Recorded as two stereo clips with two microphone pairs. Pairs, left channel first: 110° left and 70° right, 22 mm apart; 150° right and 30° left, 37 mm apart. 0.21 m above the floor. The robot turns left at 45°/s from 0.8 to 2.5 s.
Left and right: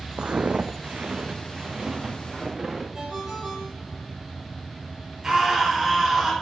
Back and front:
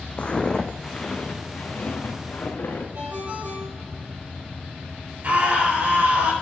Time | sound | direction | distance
0.2 | footsteps | 100° right | 0.6 m
2.9 | a ringtone | 5° right | 4.5 m
5.2 | a scream | 5° right | 4 m